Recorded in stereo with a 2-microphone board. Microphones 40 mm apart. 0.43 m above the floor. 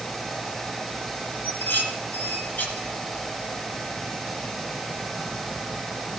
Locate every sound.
1.4 s dishes clattering: 45° left (ahead or behind), 2.5 m